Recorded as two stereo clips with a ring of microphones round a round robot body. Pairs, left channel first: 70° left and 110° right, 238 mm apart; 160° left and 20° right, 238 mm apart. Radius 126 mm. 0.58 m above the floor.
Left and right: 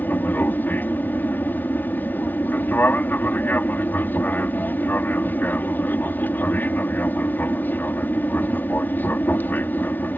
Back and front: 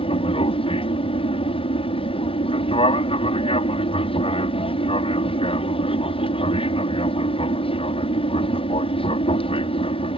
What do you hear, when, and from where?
0.0 s an aircraft: 140° left